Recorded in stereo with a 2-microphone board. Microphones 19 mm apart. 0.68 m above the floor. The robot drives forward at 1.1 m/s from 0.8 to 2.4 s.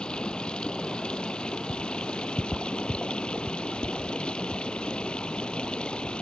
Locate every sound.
0.0 s running water: 60° left (ahead or behind); by 6.2 s 65° left (ahead or behind)